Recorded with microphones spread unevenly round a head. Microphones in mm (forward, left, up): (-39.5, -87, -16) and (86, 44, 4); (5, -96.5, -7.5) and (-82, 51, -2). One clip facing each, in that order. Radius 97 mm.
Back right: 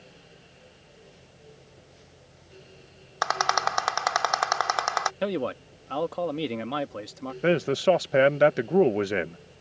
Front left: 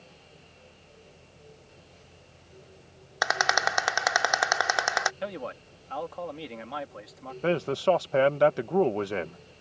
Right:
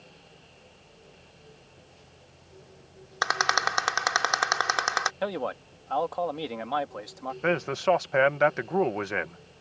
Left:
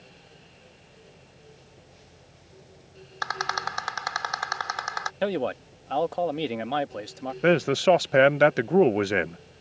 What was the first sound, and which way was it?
A rattle, 25° right.